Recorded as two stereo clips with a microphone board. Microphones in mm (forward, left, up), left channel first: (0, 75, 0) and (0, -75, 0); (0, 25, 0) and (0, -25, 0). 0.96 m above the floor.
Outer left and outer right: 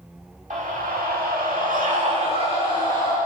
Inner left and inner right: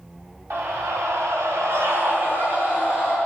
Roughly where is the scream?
Right.